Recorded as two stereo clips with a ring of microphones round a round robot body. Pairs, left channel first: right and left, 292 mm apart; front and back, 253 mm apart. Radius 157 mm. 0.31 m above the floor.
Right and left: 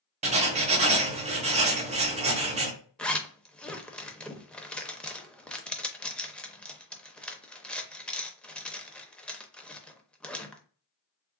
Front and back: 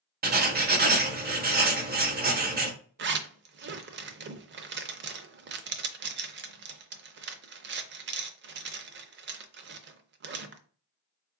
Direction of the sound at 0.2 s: 150° left.